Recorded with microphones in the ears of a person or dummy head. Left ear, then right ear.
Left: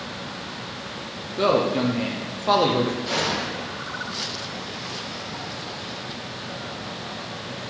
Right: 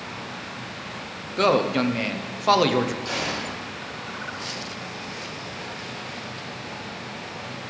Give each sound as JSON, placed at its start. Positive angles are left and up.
{"t": 1.4, "sound": "a man speaking", "side_deg": -30, "distance_m": 0.5}
{"t": 3.0, "sound": "a gunshot", "side_deg": -40, "distance_m": 3.0}